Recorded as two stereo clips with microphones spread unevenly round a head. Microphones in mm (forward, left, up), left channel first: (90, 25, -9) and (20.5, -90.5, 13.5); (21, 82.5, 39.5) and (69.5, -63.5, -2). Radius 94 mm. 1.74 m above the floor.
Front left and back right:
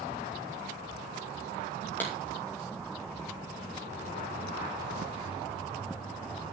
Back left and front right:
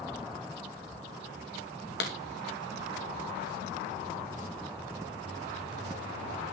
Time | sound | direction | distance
2.0 | a clap | 140° left | 2.5 m